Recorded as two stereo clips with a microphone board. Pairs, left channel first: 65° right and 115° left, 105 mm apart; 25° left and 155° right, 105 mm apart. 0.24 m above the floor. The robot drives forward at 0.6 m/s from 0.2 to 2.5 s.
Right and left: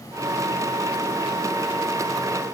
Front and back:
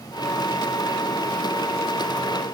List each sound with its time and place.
Only background noise.